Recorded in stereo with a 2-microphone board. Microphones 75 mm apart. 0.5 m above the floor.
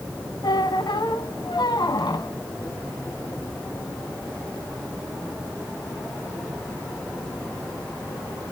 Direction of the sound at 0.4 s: 70° left (ahead or behind).